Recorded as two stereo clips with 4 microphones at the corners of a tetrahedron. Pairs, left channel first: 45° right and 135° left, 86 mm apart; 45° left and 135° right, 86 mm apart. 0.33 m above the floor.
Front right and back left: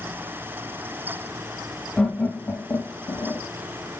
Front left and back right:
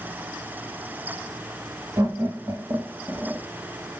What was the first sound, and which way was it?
Laughter, 115° right.